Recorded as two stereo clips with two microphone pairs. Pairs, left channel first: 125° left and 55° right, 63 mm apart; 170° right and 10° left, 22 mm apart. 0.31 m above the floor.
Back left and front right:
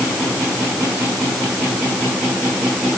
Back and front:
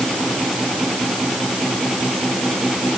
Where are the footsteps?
I don't hear footsteps.